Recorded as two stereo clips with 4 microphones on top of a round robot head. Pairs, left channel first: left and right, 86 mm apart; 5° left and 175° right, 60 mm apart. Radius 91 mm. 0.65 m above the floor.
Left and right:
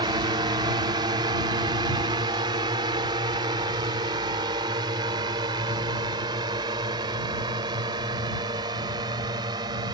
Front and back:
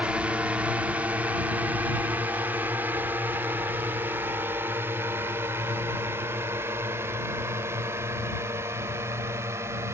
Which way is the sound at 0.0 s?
105° right.